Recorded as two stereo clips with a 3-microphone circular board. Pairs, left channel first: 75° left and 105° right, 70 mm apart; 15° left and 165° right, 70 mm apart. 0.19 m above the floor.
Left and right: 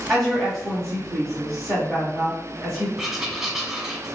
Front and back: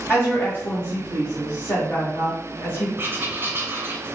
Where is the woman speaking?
5° right, 1.4 m.